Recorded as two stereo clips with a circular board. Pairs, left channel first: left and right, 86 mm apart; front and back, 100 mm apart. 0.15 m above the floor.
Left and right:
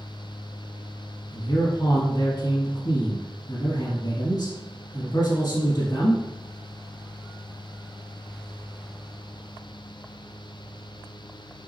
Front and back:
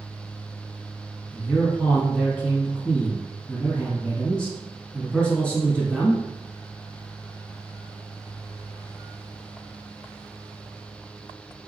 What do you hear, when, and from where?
1.3 s a man speaking: 75° left, 1.3 m